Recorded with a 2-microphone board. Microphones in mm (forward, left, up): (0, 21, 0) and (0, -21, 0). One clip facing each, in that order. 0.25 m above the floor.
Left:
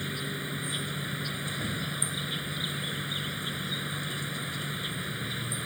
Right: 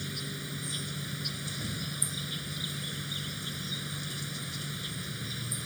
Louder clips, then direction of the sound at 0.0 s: Left 4 dB; 25° left (ahead or behind).